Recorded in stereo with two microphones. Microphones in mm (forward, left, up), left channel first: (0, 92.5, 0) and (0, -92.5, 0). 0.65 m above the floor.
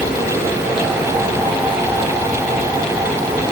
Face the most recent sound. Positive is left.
No sound to turn to.